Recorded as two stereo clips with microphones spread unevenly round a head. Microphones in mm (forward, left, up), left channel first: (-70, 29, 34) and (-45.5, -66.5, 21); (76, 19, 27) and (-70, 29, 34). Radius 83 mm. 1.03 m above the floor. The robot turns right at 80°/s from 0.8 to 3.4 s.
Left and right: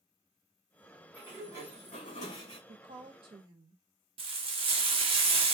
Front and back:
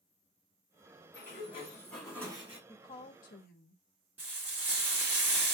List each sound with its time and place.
1.1 s a sliding door: 15° left, 3 m; by 2.6 s 130° left, 3 m
2.7 s a woman speaking: 80° right, 0.9 m; by 3.8 s 25° right, 0.9 m
4.2 s frying: 105° right, 1.2 m